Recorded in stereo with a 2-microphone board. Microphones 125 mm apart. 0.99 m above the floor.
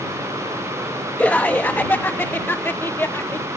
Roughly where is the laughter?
Centre.